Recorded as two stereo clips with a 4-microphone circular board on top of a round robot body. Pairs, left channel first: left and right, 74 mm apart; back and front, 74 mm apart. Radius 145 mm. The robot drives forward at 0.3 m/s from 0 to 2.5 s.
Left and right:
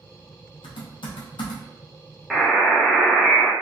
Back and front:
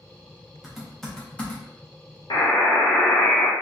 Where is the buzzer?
Straight behind, 1.1 m.